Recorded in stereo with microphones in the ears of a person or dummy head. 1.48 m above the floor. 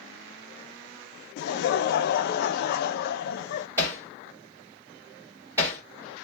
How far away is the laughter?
About 0.6 m.